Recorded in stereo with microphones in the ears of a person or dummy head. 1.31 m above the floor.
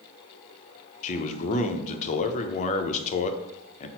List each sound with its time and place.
1.0 s a man speaking: 40° left (ahead or behind), 0.6 m